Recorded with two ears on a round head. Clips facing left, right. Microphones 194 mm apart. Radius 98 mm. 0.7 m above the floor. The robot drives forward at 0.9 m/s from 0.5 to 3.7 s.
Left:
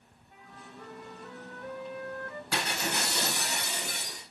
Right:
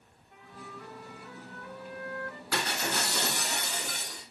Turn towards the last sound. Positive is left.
turn(degrees=15)  # may be behind; listen again after turning